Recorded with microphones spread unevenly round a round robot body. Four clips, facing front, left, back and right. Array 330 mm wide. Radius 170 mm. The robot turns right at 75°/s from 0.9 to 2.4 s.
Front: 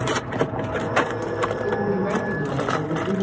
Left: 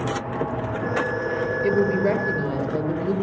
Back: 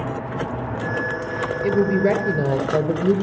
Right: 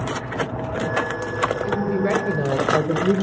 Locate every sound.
1.6 s a woman speaking: 150° left, 6.5 m; by 3.1 s 155° right, 6.5 m